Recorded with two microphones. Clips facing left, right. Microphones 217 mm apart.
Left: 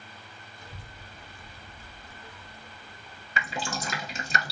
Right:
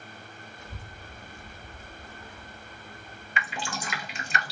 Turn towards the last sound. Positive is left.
turn(degrees=40)  # may be behind; listen again after turning